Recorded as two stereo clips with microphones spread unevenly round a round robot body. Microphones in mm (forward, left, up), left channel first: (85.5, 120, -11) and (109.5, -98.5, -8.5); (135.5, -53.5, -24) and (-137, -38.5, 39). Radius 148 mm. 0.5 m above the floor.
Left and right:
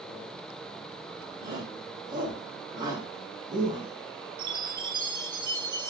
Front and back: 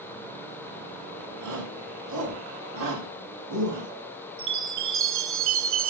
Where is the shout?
160° right, 6 m.